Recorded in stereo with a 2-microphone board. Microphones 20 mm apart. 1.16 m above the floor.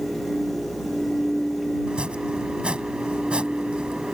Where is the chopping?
90° right.